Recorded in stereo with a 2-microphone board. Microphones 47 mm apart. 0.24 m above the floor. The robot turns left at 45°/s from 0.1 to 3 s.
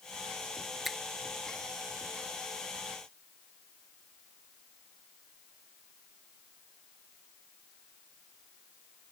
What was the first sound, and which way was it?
A finger snap, 5° right (ahead or behind).